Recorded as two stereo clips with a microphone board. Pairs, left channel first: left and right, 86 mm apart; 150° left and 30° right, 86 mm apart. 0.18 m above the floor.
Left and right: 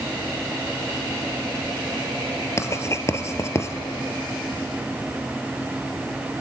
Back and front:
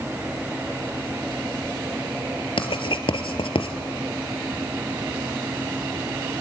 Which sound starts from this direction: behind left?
Writing, at 2.6 s.